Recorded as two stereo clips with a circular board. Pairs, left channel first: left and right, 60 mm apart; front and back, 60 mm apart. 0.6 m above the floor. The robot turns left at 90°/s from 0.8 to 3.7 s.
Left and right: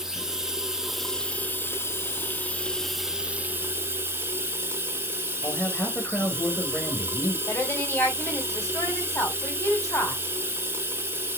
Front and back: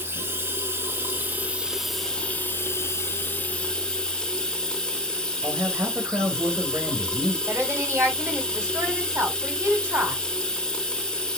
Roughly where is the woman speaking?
Behind left.